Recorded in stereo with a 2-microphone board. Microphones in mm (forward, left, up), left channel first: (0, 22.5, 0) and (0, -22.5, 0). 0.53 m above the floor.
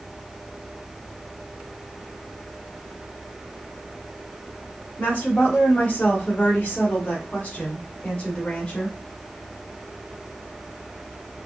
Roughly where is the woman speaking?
Left.